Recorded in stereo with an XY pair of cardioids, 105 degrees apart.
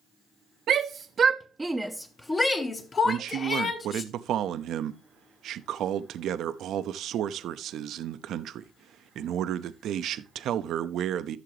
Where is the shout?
70° right, 0.9 m; by 4.0 s 50° left, 2 m.